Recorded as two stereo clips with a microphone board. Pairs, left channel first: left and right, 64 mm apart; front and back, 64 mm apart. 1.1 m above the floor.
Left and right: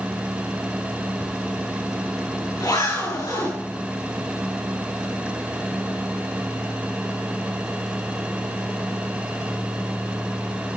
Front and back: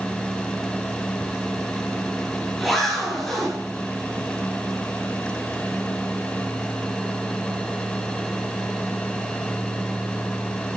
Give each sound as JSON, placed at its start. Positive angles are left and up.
{"t": 1.2, "sound": "a zipper", "azimuth_deg": 90, "distance_m": 7.5}